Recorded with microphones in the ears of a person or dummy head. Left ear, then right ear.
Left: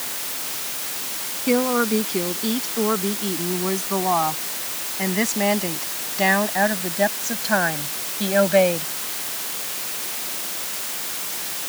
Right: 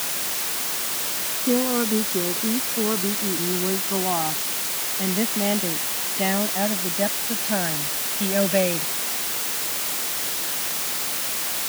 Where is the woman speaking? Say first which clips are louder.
Left 3 dB; 75° left (ahead or behind); by 8.9 s 45° left (ahead or behind).